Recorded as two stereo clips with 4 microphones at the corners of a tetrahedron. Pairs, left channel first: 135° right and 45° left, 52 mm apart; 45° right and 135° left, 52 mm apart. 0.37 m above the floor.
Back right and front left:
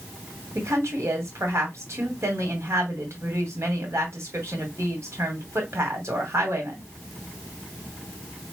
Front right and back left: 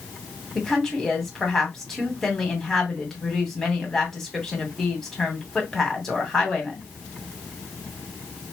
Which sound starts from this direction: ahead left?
A woman speaking, at 0.6 s.